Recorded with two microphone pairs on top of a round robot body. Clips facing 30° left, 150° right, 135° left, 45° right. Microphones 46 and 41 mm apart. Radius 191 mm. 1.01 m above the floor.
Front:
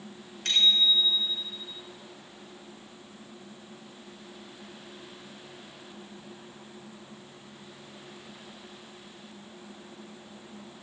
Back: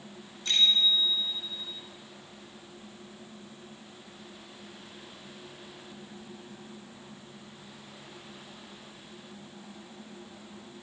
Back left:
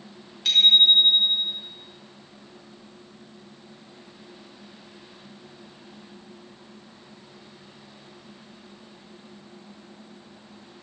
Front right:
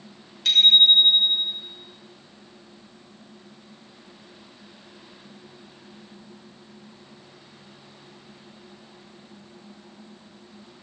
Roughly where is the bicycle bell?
Ahead left.